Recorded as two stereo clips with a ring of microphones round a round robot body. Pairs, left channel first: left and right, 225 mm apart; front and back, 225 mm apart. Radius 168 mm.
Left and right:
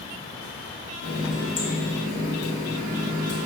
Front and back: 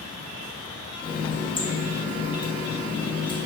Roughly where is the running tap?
Ahead left.